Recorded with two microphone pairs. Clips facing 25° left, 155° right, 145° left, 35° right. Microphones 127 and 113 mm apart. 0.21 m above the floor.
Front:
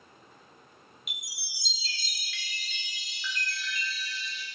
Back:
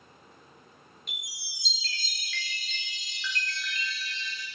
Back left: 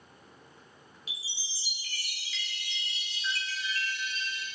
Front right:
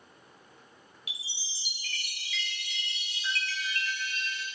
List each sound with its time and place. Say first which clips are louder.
1.1 s a chime: back 1 dB, front right 1 dB; 55° right, 0.5 m